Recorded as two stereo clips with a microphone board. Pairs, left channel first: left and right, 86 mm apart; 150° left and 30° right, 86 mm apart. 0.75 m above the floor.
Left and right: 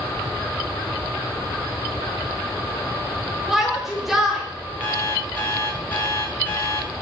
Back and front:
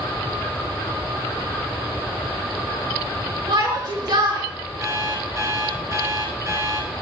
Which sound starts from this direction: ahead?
A shout, at 3.5 s.